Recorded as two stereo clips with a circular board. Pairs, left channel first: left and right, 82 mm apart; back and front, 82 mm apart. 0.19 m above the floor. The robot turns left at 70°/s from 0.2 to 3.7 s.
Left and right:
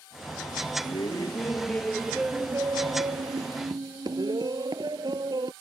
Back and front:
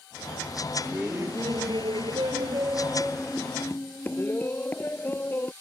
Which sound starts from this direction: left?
Laughter, at 0.8 s.